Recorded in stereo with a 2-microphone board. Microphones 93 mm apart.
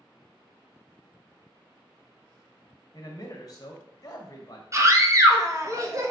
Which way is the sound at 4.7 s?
35° right (ahead or behind).